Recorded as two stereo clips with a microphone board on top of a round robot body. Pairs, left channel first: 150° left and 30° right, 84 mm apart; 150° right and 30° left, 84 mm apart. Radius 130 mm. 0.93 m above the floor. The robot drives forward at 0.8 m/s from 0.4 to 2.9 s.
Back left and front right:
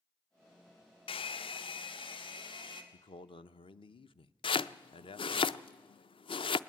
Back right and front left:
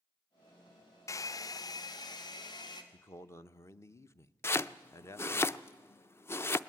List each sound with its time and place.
1.1 s a hair dryer: 155° left, 0.6 m; by 2.8 s 170° left, 1.9 m
2.9 s a man speaking: 150° left, 0.7 m
4.4 s chopping: 150° left, 0.5 m